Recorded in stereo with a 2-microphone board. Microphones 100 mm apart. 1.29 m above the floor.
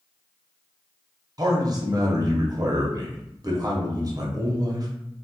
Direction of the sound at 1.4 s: 40° right (ahead or behind).